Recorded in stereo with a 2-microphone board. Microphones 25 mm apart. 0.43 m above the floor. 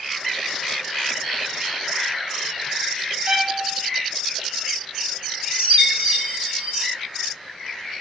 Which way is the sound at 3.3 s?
25° right (ahead or behind).